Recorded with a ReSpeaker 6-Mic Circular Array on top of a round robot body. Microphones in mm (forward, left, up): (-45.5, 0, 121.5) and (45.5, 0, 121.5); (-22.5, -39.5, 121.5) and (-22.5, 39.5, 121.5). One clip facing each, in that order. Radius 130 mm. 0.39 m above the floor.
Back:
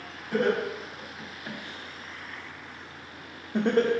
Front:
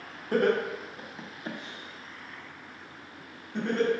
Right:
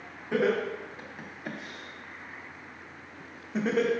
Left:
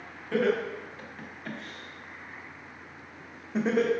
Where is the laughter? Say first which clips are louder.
Front 1 dB, even; 20° right, 1.4 m; by 3.9 s 170° left, 1.2 m.